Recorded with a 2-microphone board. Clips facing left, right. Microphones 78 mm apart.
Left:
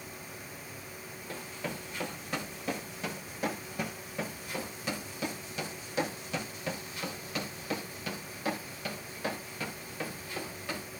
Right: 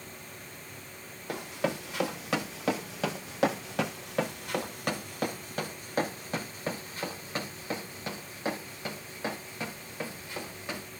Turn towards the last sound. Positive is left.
turn(degrees=-15)  # may be behind; listen again after turning